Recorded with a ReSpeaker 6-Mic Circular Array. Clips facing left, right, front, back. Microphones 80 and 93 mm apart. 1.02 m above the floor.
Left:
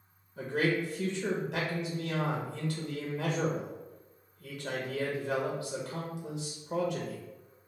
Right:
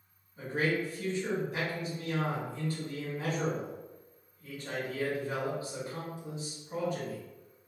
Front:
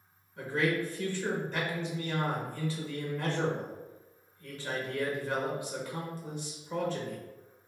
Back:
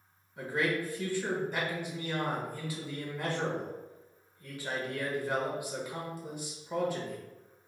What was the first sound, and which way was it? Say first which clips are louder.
A man speaking: left 1 dB, front 1 dB; 105° left.